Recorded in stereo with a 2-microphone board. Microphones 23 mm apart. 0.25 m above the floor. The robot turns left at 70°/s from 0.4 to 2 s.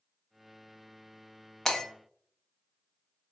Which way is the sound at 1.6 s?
25° left (ahead or behind).